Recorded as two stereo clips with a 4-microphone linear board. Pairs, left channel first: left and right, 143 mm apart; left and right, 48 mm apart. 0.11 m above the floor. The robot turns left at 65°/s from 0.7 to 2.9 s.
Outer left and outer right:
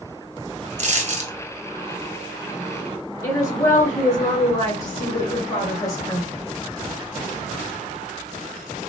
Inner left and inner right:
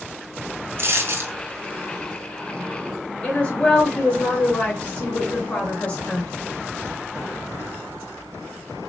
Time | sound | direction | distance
0.8 | a dropped coin | 85° right | 1.0 m
3.2 | a woman speaking | 25° left (ahead or behind) | 1.7 m